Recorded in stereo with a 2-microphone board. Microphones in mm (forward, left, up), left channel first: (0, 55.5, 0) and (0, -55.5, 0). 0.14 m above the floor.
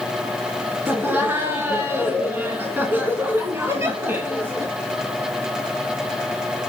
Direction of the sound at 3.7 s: 25° right (ahead or behind).